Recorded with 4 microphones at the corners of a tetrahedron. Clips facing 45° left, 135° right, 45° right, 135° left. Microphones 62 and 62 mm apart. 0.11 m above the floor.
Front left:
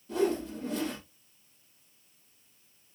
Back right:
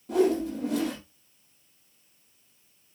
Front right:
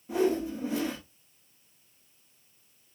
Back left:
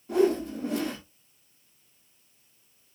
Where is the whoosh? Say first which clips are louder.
Back right 5 dB, back left 3 dB; 130° right, 3.5 m.